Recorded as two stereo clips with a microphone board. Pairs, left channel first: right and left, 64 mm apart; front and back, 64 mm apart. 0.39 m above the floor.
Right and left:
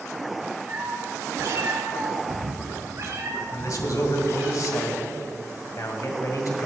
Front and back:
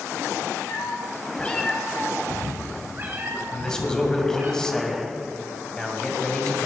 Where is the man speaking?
80° right, 2 m.